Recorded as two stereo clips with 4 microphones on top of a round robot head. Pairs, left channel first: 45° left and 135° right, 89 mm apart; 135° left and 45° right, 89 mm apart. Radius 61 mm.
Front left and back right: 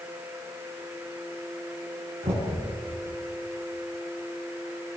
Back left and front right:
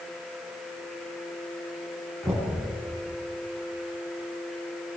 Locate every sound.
2.2 s knocking: 140° right, 9.5 m